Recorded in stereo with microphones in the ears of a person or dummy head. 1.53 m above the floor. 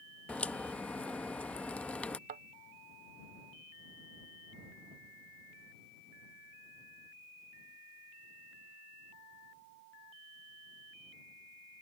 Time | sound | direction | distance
0.3 | a crack | 10° left (ahead or behind) | ?
2.3 | a thud | 40° right (ahead or behind) | ?